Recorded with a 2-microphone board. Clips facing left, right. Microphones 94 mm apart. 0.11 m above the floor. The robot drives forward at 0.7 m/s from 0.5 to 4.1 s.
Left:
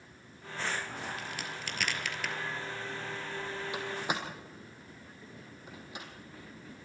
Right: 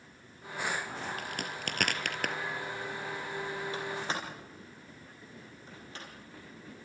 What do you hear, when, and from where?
1.2 s a crack: 55° right (ahead or behind), 1.7 m
3.7 s a door slam: 15° left (ahead or behind), 3 m